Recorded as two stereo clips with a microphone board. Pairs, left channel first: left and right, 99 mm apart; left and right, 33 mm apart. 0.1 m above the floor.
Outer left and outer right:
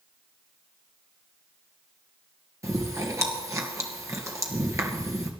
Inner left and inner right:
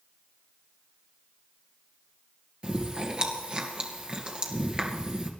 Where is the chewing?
30° right (ahead or behind), 2 m.